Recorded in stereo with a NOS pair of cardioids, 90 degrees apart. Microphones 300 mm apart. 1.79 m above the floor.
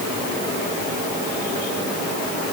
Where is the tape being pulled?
No tape being pulled in this recording.